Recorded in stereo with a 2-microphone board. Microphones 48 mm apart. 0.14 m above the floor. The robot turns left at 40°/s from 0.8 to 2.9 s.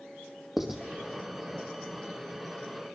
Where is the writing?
5° right (ahead or behind), 2.5 m.